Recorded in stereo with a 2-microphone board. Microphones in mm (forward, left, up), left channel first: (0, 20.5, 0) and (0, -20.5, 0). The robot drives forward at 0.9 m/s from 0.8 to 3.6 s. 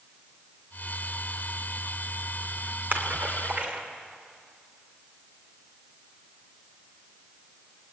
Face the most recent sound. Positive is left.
turn(degrees=-35)  # may be behind; listen again after turning